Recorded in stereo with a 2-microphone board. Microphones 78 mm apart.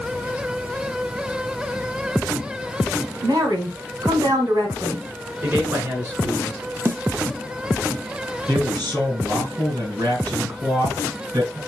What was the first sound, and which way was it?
A woman speaking, 60° right (ahead or behind).